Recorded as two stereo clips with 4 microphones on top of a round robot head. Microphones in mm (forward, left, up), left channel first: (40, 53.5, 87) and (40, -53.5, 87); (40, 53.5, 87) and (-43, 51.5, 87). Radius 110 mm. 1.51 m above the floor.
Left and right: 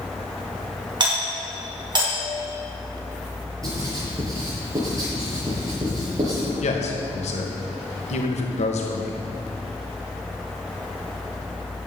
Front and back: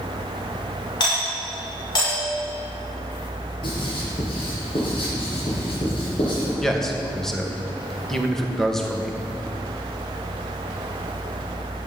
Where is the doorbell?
40° right, 6.5 m.